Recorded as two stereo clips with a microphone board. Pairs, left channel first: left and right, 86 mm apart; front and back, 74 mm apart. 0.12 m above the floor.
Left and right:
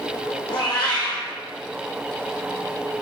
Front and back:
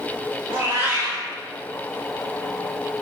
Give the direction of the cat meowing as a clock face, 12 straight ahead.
8 o'clock.